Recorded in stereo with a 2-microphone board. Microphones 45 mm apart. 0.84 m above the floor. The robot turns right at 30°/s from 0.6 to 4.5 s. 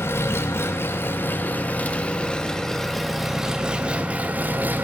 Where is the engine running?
105° left, 0.9 m; by 4.8 s 135° right, 0.9 m.